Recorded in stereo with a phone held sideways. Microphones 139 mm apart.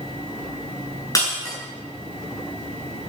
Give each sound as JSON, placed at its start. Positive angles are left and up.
{"t": 1.1, "sound": "breaking glass", "side_deg": 25, "distance_m": 7.5}